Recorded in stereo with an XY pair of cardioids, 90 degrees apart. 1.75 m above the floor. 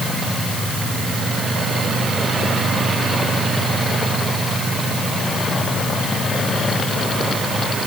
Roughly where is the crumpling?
No crumpling in this recording.